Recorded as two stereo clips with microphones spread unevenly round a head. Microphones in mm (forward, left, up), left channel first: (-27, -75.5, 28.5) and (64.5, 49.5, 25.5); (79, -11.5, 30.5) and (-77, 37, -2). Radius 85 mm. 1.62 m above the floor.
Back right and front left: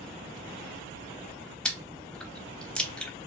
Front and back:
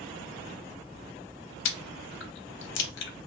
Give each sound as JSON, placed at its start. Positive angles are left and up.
{"t": 1.6, "sound": "chewing", "azimuth_deg": -40, "distance_m": 0.5}